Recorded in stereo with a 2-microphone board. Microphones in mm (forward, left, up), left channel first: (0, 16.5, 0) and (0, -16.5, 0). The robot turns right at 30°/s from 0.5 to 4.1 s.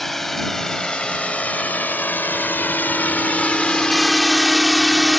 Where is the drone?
10° left (ahead or behind); by 5.2 s 10° right (ahead or behind).